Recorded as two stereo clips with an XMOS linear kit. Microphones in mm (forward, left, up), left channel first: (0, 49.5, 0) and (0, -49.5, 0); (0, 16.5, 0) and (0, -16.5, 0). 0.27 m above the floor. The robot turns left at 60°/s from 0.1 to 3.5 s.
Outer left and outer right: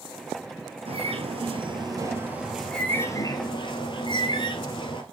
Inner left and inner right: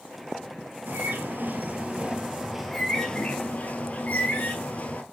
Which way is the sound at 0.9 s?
75° right.